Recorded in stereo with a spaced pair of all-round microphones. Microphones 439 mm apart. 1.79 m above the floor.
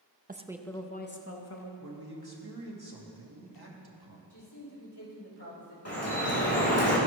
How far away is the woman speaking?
About 0.5 m.